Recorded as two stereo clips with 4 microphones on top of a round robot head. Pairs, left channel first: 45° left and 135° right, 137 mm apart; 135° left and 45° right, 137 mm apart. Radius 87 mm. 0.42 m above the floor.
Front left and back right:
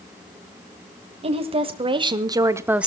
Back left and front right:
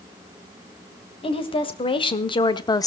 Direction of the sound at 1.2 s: 175° right.